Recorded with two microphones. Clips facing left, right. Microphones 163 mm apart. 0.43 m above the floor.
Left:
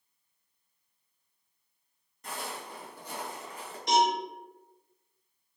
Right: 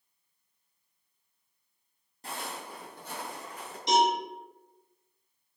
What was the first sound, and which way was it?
Footsteps, 35° right (ahead or behind).